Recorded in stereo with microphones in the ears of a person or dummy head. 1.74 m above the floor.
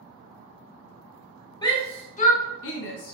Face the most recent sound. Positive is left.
turn(degrees=55)  # may be behind; listen again after turning